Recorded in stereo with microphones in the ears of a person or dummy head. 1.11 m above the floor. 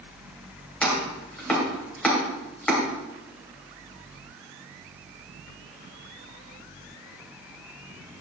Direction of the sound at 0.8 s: 10° left (ahead or behind).